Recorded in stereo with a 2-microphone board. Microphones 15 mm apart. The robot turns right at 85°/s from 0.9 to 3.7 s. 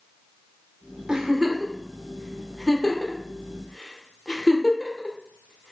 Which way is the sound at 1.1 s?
45° right (ahead or behind).